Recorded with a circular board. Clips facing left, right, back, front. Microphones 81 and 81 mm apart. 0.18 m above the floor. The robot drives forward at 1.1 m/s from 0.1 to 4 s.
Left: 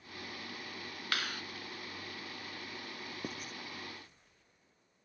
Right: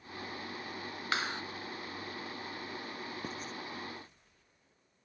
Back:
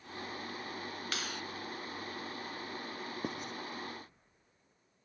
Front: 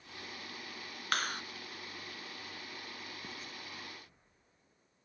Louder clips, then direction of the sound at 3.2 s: Right 2 dB, back 8 dB; 170° left.